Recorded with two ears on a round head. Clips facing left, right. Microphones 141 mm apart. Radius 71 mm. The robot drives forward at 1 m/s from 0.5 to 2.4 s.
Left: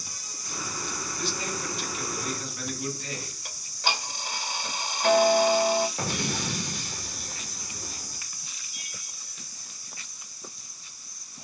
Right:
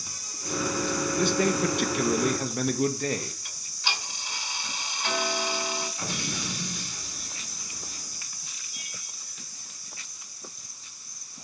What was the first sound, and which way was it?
A man speaking, 45° right (ahead or behind).